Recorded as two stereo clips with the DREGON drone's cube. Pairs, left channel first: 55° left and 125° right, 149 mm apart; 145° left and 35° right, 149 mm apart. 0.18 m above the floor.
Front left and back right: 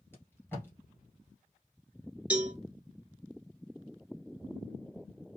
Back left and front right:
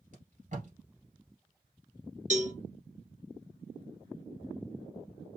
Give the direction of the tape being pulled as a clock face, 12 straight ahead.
1 o'clock.